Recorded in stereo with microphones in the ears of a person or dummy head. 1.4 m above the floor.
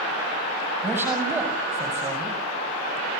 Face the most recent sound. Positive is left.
turn(degrees=-10)  # may be behind; listen again after turning